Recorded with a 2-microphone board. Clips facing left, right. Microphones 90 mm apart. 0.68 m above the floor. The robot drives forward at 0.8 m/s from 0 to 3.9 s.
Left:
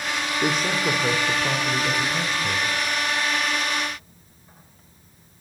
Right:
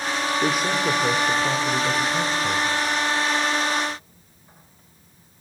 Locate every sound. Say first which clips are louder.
0.4 s a man speaking: even; 5° right (ahead or behind), 1.6 m; by 2.7 s centre (ahead or behind), 3.5 m